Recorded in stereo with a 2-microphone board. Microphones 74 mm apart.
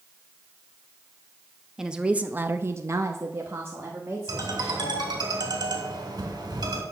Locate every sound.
1.8 s a woman speaking: 10° right (ahead or behind), 0.9 m; by 5.0 s 25° right (ahead or behind), 2 m
4.3 s a ringtone: 80° right, 2.5 m